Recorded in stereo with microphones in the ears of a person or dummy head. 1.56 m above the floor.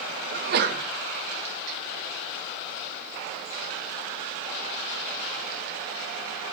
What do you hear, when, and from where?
0.3 s a sneeze: 55° right (ahead or behind), 1.7 m